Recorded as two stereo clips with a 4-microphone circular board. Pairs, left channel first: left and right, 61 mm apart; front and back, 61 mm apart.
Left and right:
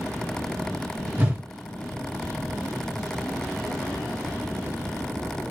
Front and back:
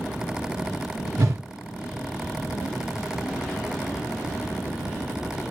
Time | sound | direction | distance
1.2 | a whoosh | 150° right | 0.8 m